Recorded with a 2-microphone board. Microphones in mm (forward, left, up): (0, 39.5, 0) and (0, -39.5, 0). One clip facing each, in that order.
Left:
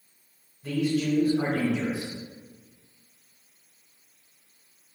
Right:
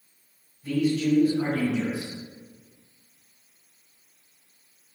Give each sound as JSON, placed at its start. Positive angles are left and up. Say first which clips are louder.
{"t": 0.6, "sound": "a man speaking", "louder": "right 2 dB", "side_deg": 75, "distance_m": 1.4}